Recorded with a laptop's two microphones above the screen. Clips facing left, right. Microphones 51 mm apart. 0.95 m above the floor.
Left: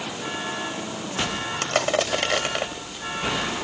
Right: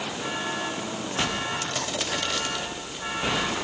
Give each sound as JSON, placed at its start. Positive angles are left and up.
{"t": 1.6, "sound": "crushing", "side_deg": 65}